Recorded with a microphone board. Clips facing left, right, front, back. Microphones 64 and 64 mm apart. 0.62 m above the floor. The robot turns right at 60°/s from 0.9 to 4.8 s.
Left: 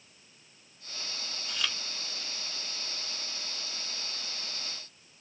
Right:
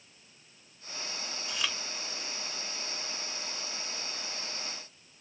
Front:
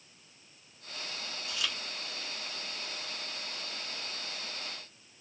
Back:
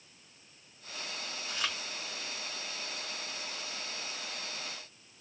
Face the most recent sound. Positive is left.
turn(degrees=25)